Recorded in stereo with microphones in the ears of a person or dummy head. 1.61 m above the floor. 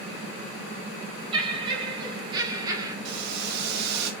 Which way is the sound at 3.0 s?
55° right (ahead or behind).